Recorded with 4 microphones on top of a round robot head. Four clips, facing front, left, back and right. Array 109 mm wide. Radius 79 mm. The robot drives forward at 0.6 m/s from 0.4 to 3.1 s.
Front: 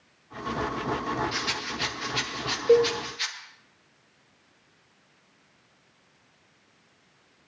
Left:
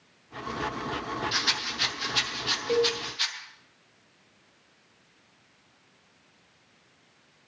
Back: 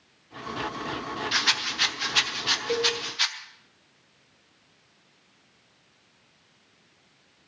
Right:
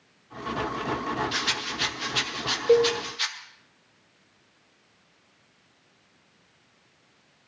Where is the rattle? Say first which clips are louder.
Right 1 dB, back 2 dB; 160° left, 1.3 m; by 3.3 s 170° left, 2.5 m.